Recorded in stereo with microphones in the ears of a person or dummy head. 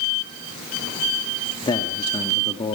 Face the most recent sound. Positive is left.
turn(degrees=15)  # may be behind; listen again after turning